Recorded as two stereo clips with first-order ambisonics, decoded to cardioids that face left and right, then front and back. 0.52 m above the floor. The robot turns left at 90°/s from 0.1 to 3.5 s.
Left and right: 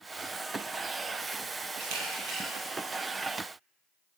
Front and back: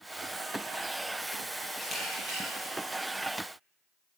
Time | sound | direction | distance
1.8 | a camera shutter | 85° right | 6 m